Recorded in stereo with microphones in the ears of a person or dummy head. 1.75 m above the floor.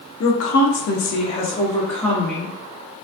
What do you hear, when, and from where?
0.2 s a woman speaking: 85° left, 0.8 m; by 2.5 s centre (ahead or behind), 0.9 m